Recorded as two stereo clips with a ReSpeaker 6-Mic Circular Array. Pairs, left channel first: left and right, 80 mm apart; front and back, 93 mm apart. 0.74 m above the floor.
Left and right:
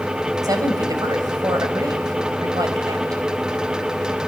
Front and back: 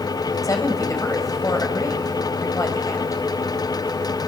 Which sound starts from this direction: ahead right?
A woman speaking, at 0.4 s.